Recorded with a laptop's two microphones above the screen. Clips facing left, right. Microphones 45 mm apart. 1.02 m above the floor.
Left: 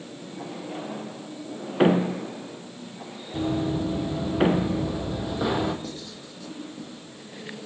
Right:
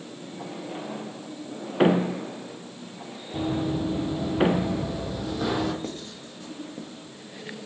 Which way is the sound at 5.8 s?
45° right (ahead or behind).